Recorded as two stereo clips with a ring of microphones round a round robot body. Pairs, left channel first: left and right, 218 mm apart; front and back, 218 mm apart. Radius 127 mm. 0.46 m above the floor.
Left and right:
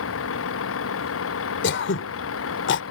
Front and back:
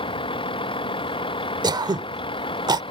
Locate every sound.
0.0 s a vehicle: 65° left
1.6 s throat clearing: 110° left